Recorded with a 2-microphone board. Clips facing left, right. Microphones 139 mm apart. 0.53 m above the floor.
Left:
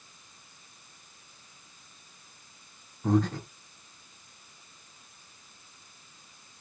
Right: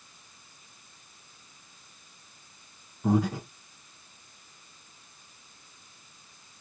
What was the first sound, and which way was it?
Breathing, 10° right (ahead or behind).